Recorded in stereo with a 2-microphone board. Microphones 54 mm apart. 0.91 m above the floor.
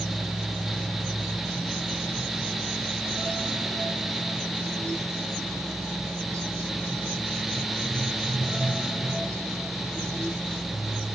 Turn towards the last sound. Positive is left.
No sound to turn to.